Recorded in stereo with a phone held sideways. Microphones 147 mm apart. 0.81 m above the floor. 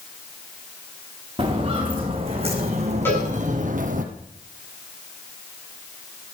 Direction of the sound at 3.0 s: 15° left (ahead or behind).